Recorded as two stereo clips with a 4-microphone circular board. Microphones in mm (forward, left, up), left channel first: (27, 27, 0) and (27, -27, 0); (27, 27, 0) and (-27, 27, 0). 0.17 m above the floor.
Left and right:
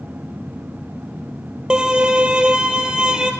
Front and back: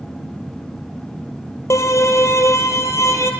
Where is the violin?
15° right, 1.4 m.